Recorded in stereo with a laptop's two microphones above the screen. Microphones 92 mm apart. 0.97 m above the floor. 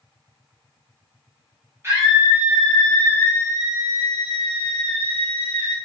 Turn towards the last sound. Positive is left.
turn(degrees=70)  # may be behind; listen again after turning